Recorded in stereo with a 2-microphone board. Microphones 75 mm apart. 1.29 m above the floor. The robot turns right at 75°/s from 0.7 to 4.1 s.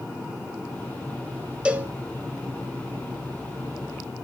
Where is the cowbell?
15° right (ahead or behind), 1.5 m; by 1.9 s 35° right (ahead or behind), 1.5 m.